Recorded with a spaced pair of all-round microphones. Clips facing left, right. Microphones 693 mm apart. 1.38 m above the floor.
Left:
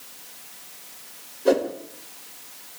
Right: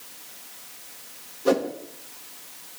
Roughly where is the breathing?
No breathing in this recording.